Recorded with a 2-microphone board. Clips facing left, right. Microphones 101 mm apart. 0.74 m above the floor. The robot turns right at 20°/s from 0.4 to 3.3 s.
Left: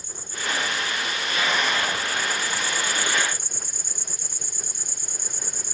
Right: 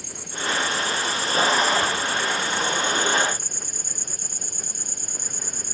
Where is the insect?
110° right; by 5.8 s 50° right.